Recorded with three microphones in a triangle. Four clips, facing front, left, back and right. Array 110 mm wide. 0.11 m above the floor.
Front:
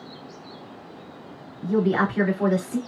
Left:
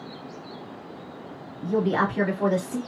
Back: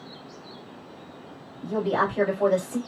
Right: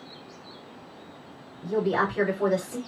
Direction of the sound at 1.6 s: 5° left.